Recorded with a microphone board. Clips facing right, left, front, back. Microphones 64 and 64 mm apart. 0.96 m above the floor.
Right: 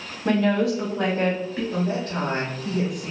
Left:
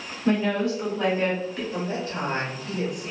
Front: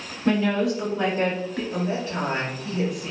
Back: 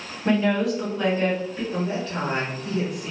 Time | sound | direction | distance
0.2 | a woman speaking | 110° right | 1.4 m
1.7 | a woman speaking | 85° right | 1.1 m